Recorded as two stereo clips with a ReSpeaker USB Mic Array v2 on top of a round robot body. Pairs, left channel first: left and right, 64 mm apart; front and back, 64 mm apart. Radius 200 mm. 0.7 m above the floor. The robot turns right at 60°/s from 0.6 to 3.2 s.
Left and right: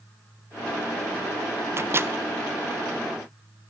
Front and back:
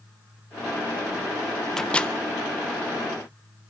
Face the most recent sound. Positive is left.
turn(degrees=10)